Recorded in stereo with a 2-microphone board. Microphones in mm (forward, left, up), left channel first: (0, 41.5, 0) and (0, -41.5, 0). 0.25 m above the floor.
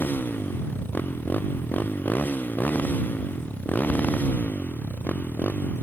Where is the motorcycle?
25° left (ahead or behind); by 5.8 s 20° left (ahead or behind).